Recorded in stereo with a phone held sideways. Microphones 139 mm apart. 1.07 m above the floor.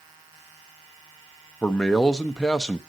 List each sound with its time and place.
1.6 s a man speaking: 5° left (ahead or behind), 0.8 m